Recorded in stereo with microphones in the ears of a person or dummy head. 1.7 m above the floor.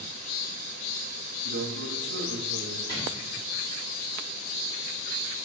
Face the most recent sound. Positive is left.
turn(degrees=25)  # may be behind; listen again after turning